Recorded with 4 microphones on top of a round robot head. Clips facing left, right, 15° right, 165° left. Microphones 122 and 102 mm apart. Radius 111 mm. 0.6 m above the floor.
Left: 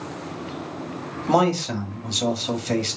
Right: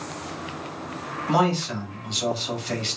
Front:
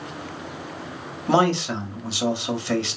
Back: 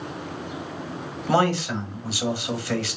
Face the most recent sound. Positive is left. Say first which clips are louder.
# left 3 dB, front 2 dB
turn(degrees=50)